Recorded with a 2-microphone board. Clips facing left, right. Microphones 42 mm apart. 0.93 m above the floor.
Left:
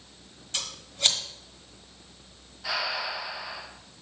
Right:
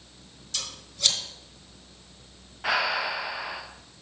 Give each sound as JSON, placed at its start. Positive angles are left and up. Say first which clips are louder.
{"t": 0.5, "sound": "scissors", "louder": "left 2 dB", "side_deg": 30, "distance_m": 1.4}
{"t": 2.6, "sound": "breathing", "louder": "right 5 dB", "side_deg": -45, "distance_m": 0.8}